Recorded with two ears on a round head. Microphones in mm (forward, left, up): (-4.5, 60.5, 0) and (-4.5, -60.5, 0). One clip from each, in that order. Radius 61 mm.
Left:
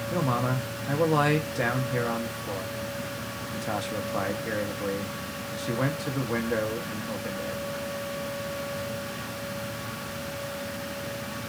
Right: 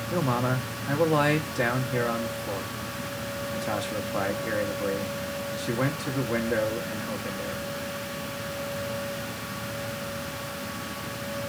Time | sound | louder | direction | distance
0.1 | a man speaking | right 1 dB | centre (ahead or behind) | 0.9 m